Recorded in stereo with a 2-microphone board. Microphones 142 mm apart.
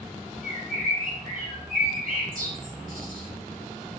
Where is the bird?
75° right (ahead or behind), 3 m.